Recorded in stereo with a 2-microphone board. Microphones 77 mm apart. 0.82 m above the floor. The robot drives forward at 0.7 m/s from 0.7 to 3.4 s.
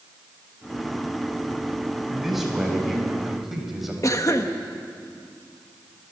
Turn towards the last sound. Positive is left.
turn(degrees=45)  # may be behind; listen again after turning